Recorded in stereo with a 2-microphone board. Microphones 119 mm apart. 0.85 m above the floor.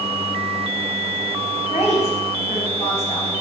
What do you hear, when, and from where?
1.7 s a woman speaking: 55° left (ahead or behind), 5 m